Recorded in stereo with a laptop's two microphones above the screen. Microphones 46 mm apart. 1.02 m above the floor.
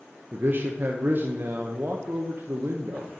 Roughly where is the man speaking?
Right.